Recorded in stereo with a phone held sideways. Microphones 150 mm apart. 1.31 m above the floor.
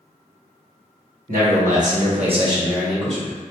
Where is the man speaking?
70° right (ahead or behind), 1.4 m; by 3.3 s 15° left (ahead or behind), 1.0 m.